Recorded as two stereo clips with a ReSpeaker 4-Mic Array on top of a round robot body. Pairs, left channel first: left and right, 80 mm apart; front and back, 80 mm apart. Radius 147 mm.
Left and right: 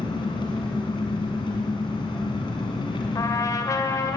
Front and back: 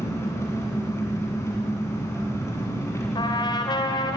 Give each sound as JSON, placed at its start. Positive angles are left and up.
{"t": 0.0, "sound": "an engine running", "azimuth_deg": 60, "distance_m": 2.5}
{"t": 3.1, "sound": "a trumpet", "azimuth_deg": 35, "distance_m": 1.6}